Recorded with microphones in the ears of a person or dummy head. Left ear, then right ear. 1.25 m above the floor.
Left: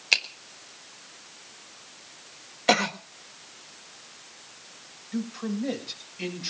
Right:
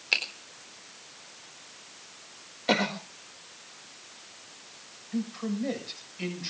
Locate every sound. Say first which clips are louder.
0.1 s a finger snap: left 4 dB; 20° left (ahead or behind), 3.5 m
2.7 s a cough: left 4 dB; 30° left (ahead or behind), 1.3 m
5.1 s a man speaking: left 1 dB; centre (ahead or behind), 7.5 m